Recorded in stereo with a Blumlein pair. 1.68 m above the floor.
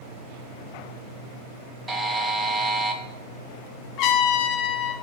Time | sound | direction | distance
1.9 | a buzzer | 10° right | 1.6 m
4.0 | a trumpet | 35° left | 3 m